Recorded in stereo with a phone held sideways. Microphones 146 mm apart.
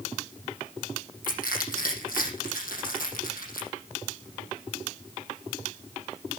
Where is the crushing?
80° left, 5.5 m.